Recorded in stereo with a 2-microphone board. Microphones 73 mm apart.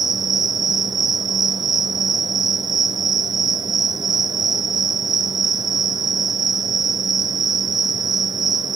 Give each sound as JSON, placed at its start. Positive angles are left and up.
{"t": 0.0, "sound": "an insect", "side_deg": -70, "distance_m": 0.7}